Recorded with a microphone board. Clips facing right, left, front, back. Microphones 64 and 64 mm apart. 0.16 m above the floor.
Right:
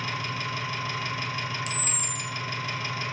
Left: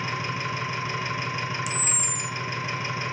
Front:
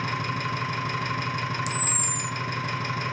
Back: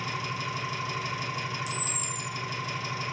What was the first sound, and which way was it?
An engine running, 25° left.